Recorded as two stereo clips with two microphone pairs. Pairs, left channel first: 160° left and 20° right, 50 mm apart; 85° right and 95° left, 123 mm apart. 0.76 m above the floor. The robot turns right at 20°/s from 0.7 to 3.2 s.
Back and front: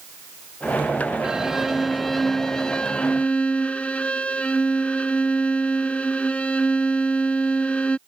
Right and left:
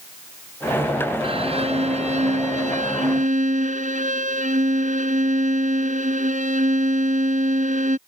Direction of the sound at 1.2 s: 55° left.